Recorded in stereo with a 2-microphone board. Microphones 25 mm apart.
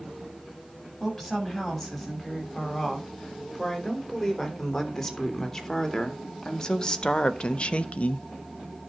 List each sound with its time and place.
1.0 s a woman speaking: 5° left (ahead or behind), 6.5 m; by 8.3 s 60° left (ahead or behind), 0.8 m